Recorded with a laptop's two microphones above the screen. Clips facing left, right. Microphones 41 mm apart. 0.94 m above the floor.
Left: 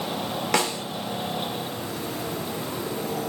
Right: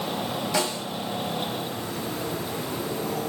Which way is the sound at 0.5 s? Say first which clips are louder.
Left 3 dB; 70° left (ahead or behind).